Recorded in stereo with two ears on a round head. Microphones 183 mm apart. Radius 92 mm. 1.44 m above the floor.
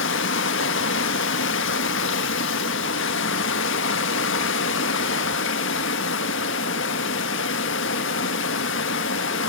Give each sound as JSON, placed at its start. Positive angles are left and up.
{"t": 0.0, "sound": "running water", "side_deg": 60, "distance_m": 1.7}